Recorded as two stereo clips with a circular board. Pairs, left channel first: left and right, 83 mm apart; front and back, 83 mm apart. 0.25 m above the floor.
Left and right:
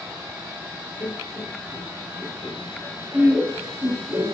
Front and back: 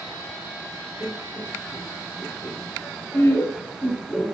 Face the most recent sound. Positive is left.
turn(degrees=-70)